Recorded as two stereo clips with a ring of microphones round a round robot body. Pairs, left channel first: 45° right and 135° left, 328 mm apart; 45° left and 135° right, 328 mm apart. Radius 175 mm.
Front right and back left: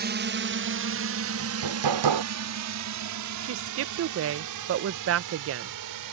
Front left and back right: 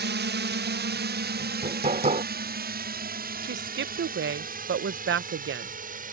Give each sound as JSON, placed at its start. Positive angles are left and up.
{"t": 0.0, "sound": "a drone", "azimuth_deg": 180}
{"t": 1.4, "sound": "hammering", "azimuth_deg": 155}
{"t": 3.4, "sound": "a woman speaking", "azimuth_deg": 175}